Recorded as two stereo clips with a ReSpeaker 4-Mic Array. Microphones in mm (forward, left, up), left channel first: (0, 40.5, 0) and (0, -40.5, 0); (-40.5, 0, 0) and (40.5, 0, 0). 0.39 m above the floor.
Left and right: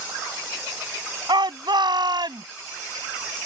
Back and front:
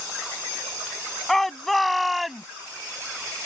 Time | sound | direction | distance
1.3 | a shout | 95° right | ?